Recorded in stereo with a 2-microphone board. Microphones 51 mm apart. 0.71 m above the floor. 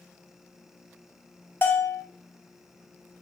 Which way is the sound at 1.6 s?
45° left (ahead or behind).